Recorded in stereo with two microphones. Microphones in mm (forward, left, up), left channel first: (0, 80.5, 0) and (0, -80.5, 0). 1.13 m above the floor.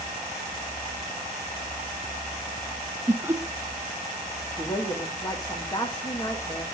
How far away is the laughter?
About 1.0 m.